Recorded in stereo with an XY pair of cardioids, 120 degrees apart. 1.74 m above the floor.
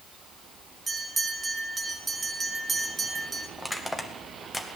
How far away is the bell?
About 1.9 m.